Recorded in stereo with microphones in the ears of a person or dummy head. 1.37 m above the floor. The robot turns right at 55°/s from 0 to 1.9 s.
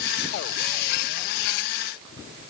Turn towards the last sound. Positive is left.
No sound to turn to.